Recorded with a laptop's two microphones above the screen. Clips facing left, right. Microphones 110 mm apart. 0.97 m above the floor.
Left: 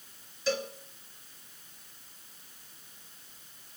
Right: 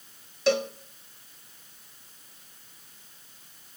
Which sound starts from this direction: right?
A cowbell, at 0.5 s.